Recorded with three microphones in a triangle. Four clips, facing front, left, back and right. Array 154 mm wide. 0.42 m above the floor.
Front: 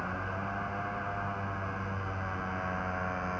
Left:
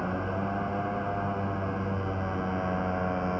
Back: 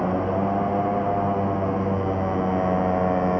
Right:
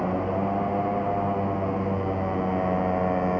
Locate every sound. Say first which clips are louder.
0.0 s a motorcycle: right 6 dB, back 14 dB; 155° right